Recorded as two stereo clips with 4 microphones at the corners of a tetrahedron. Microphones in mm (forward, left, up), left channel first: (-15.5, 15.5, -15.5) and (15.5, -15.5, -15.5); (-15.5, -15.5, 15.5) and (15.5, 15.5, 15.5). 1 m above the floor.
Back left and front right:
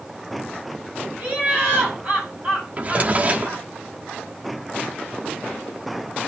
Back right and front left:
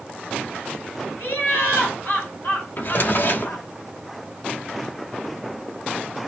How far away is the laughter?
About 6 m.